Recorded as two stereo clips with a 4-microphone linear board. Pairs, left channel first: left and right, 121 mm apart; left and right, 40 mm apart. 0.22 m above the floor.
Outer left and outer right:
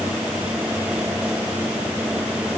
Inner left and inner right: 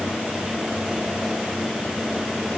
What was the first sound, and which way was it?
Only background noise.